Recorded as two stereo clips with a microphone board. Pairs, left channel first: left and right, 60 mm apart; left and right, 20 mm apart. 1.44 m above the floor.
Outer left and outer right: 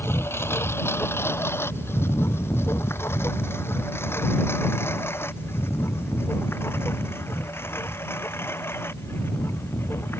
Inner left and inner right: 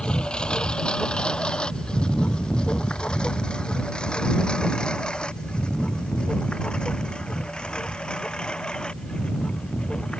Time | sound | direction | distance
0.0 | a lawn mower | 40° left (ahead or behind) | ?